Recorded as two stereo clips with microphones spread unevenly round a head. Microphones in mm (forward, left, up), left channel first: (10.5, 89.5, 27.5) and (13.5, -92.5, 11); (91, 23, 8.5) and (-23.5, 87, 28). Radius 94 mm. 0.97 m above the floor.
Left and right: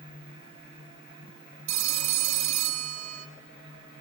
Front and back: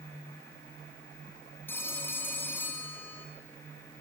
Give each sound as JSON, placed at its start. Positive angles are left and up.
{"t": 1.7, "sound": "a phone ringing", "azimuth_deg": -110, "distance_m": 2.0}